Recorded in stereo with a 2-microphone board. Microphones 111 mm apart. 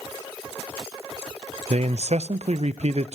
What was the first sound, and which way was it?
A man speaking, 75° right (ahead or behind).